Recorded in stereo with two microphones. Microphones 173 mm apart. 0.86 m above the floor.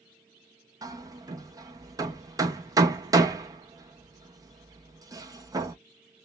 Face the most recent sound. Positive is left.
turn(degrees=-20)  # may be behind; listen again after turning